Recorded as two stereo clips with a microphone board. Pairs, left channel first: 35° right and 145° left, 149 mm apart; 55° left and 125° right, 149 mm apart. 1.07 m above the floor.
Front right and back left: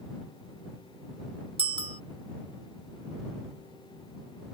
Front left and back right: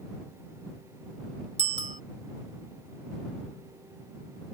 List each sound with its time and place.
1.6 s a bicycle bell: 165° right